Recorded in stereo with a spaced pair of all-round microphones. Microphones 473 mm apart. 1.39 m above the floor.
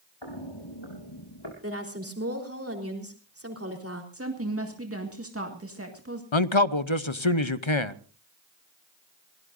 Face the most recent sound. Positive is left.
turn(degrees=70)  # may be behind; listen again after turning